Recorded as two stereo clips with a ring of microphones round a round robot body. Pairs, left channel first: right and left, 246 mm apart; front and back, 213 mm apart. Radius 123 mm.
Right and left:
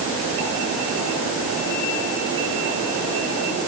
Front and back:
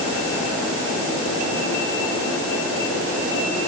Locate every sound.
Only background noise.